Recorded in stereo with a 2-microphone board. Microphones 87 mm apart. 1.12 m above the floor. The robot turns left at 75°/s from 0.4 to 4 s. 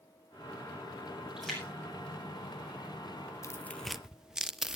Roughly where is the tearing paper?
Left.